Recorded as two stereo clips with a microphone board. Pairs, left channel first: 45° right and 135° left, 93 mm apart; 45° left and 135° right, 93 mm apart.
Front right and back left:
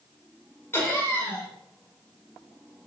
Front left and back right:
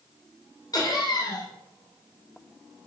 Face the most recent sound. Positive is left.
turn(degrees=15)